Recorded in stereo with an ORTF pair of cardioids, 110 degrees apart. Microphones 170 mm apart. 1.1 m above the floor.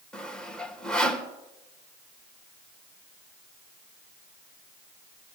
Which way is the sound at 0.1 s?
5° left.